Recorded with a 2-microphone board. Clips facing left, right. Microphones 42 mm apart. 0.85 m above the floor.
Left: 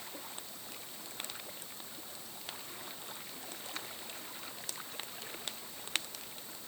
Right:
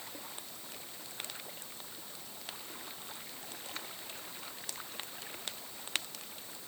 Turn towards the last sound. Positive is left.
No sound to turn to.